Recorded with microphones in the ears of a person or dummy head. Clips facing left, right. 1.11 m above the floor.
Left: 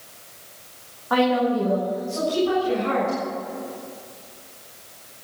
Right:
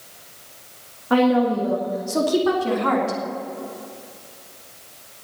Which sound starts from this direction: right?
A woman speaking, at 1.1 s.